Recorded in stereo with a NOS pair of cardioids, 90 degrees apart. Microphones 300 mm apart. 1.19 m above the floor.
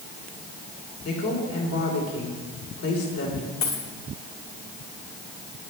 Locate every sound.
1.1 s a woman speaking: 55° left, 4 m
3.6 s a dropped coin: 65° left, 4 m